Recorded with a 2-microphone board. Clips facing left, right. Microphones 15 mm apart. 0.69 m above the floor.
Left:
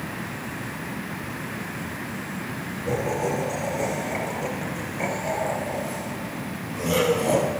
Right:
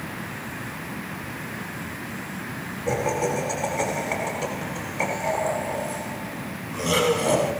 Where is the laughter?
45° right (ahead or behind), 9.5 m; by 7.5 s 25° right (ahead or behind), 9 m.